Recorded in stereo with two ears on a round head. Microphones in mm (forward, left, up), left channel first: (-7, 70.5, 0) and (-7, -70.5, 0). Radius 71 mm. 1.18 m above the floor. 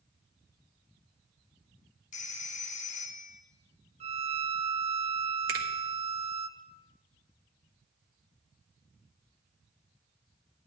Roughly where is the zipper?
No zipper in this recording.